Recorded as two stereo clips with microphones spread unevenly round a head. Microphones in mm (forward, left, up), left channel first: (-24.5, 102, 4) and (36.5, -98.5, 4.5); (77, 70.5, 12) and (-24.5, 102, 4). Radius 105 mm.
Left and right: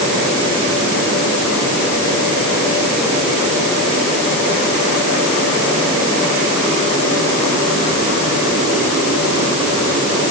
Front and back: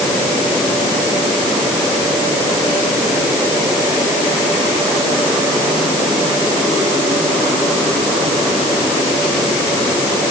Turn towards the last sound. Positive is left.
No sound to turn to.